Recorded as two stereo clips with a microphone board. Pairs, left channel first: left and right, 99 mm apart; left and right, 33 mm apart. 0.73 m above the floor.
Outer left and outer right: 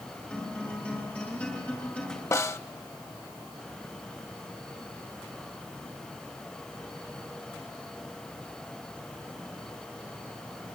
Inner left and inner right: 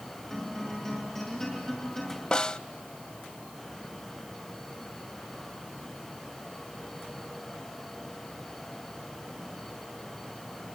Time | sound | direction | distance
0.3 | a guitar | 15° left (ahead or behind) | 6 m
2.3 | a snare drum | 30° left (ahead or behind) | 0.6 m